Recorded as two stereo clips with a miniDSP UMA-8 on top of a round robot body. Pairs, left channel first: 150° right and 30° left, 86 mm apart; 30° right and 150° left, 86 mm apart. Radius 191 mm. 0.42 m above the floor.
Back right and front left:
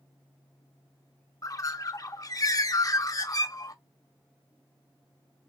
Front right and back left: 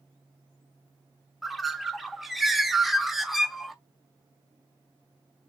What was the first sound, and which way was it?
A bird, 120° right.